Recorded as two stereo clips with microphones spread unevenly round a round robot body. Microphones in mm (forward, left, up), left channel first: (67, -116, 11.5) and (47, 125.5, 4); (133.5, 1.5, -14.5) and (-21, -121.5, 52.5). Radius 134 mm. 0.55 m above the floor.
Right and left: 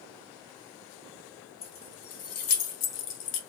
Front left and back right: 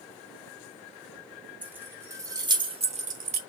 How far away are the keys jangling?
About 1.8 m.